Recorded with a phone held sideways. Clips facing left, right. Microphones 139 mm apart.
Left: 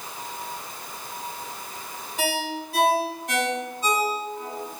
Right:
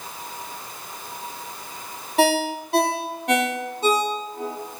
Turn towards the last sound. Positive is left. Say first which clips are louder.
# right 8 dB
turn(degrees=-65)  # may be behind; listen again after turning